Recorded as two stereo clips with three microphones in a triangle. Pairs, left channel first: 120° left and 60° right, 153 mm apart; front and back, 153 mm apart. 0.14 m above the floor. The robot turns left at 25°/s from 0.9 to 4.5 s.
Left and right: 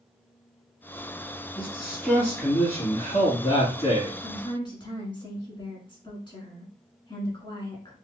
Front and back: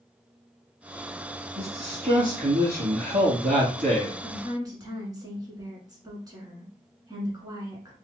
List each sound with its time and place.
1.6 s a man speaking: 140° right, 2.5 m; by 4.1 s 155° left, 2.5 m
4.2 s a woman speaking: 150° left, 1.2 m; by 8.0 s 140° left, 1.2 m